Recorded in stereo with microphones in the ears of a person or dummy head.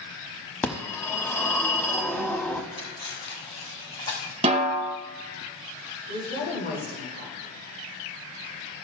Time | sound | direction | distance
0.6 | a phone ringing | 15° left (ahead or behind) | 1.0 m
2.7 | cutlery clinking | 25° left (ahead or behind) | 3.5 m
4.4 | a snare drum | 30° right (ahead or behind) | 1.1 m
6.1 | a woman speaking | 55° left (ahead or behind) | 3.5 m